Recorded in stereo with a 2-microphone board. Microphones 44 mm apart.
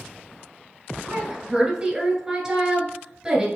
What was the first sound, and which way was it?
A woman speaking, 15° right (ahead or behind).